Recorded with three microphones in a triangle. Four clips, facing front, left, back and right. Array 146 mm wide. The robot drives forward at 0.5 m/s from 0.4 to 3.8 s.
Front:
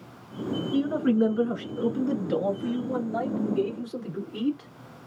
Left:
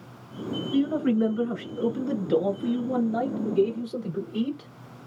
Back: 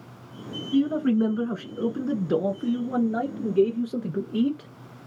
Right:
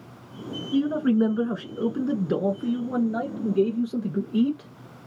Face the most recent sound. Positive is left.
turn(degrees=-155)